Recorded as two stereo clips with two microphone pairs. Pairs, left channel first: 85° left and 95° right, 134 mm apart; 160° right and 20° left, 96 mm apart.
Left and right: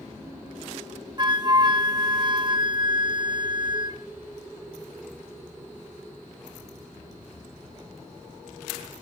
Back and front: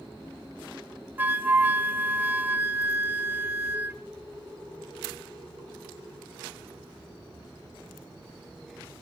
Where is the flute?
40° right, 0.6 m.